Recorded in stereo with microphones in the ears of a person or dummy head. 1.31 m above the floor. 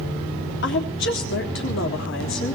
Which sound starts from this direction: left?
A woman speaking, at 0.6 s.